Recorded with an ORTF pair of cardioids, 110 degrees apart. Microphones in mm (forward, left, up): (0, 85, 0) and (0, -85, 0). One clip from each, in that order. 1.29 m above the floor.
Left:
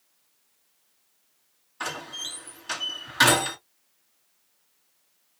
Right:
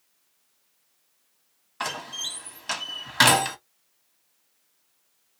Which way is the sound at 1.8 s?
40° right.